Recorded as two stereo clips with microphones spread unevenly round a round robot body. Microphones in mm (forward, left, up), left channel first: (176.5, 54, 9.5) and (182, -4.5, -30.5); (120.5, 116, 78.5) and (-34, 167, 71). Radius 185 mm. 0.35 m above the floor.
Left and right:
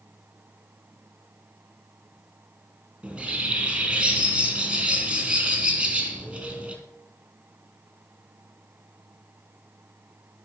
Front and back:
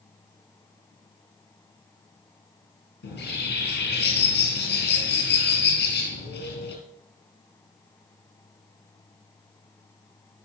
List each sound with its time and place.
3.0 s a bird: 15° right, 4 m